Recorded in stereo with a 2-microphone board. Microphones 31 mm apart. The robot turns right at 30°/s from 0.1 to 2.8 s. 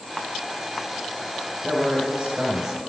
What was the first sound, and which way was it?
A man speaking, 50° right.